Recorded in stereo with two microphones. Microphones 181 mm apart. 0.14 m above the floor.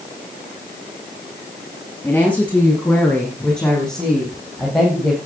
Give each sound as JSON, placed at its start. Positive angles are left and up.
{"t": 2.0, "sound": "a woman speaking", "side_deg": 10, "distance_m": 8.0}